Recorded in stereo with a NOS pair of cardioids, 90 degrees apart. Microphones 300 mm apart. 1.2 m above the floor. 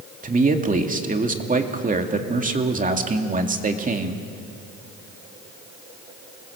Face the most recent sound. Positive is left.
turn(degrees=-25)